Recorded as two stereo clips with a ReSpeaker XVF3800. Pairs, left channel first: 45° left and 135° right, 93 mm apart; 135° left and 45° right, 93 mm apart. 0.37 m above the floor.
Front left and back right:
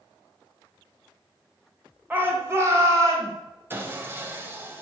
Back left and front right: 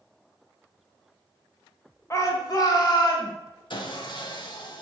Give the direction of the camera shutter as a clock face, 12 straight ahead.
I don't hear a camera shutter.